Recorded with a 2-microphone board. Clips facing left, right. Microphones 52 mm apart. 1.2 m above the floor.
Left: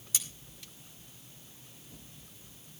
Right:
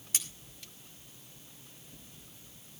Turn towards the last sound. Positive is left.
turn(degrees=-50)  # may be behind; listen again after turning